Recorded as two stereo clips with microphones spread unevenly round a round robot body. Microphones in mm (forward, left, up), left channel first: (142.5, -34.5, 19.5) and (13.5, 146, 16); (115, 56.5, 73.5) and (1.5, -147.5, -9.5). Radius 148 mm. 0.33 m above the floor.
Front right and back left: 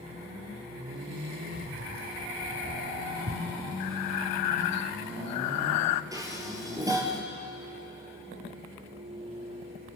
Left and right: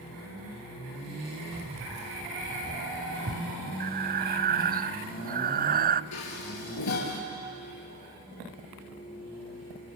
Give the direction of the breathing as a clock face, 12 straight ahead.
2 o'clock.